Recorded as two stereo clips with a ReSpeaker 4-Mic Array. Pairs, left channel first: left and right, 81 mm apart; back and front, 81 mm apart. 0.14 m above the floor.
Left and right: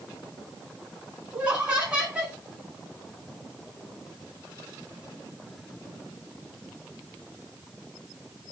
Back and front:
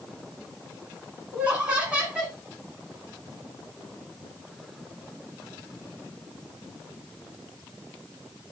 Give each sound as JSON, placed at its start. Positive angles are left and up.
{"t": 1.3, "sound": "laughter", "azimuth_deg": -45, "distance_m": 1.5}